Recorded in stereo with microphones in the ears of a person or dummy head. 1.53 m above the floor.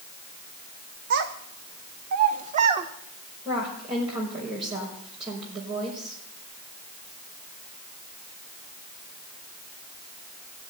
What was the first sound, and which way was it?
A child speaking, 65° right (ahead or behind).